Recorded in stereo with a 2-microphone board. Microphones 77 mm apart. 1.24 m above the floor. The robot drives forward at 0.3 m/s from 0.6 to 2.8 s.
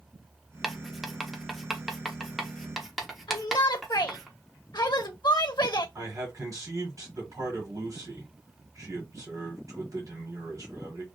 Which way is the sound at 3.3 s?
70° left (ahead or behind).